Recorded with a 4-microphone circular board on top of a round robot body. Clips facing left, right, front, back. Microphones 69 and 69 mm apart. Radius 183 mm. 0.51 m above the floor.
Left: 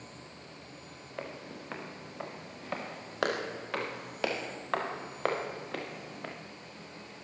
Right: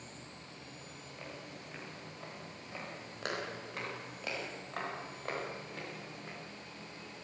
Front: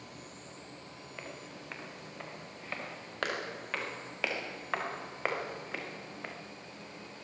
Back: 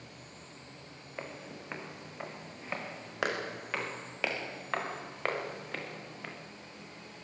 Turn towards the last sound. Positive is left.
turn(degrees=75)